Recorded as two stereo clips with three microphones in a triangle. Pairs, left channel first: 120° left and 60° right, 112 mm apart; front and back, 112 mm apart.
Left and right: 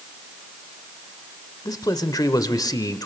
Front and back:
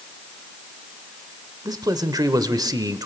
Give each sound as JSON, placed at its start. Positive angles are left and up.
{"t": 1.6, "sound": "a man speaking", "azimuth_deg": 150, "distance_m": 1.2}